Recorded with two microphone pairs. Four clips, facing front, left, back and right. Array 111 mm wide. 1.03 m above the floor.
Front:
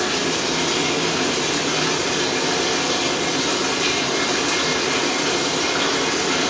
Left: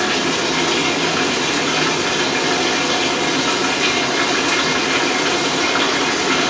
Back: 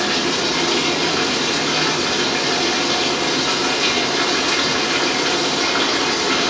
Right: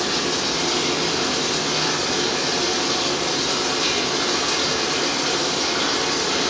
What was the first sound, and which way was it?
Running water, 115° left.